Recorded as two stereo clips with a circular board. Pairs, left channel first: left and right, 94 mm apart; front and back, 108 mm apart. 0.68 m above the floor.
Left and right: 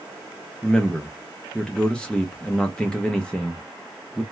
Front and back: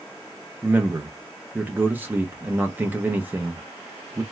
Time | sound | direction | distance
0.6 | a man speaking | 150° left | 0.6 m